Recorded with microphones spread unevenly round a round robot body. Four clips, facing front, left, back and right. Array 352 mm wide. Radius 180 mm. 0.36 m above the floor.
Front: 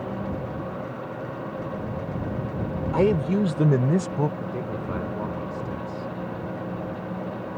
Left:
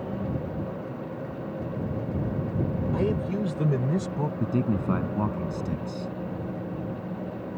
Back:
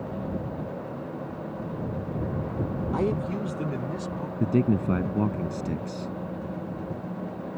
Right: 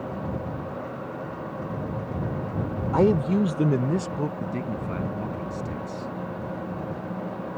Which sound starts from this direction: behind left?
A man speaking, at 4.4 s.